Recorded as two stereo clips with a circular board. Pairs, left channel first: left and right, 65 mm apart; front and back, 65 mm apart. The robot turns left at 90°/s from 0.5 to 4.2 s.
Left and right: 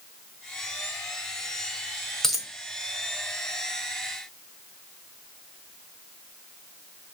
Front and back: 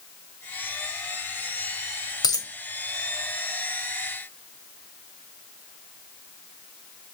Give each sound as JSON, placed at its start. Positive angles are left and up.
{"t": 2.2, "sound": "a dropped coin", "azimuth_deg": 5, "distance_m": 1.1}